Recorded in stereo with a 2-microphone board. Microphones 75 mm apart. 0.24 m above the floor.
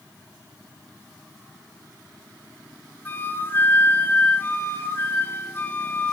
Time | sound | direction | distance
3.0 | a flute | 30° left (ahead or behind) | 1.4 m